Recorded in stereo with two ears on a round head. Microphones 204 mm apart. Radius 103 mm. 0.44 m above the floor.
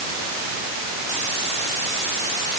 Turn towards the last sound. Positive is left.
No sound to turn to.